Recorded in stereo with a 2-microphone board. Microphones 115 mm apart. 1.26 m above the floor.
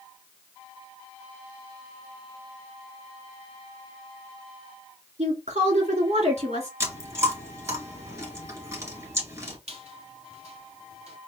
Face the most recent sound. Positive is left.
turn(degrees=-65)  # may be behind; listen again after turning